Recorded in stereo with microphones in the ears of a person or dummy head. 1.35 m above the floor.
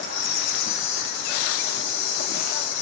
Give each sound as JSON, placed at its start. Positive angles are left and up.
{"t": 0.0, "sound": "an insect", "side_deg": 60, "distance_m": 1.9}